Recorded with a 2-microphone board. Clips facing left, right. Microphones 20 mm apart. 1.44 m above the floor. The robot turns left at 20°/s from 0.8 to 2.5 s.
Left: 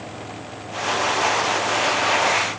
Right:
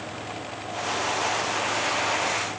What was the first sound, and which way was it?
Only background noise.